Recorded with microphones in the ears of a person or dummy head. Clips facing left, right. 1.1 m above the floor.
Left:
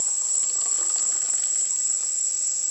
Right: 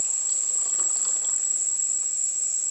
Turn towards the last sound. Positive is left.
turn(degrees=55)  # may be behind; listen again after turning